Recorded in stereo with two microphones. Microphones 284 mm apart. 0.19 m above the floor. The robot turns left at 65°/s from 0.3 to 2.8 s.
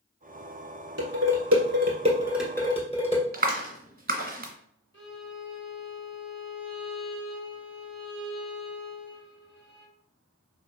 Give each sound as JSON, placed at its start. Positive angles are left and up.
{"t": 1.0, "sound": "dishes clattering", "side_deg": -65, "distance_m": 1.7}
{"t": 3.3, "sound": "a clap", "side_deg": -35, "distance_m": 1.5}
{"t": 4.9, "sound": "a violin", "side_deg": 40, "distance_m": 1.6}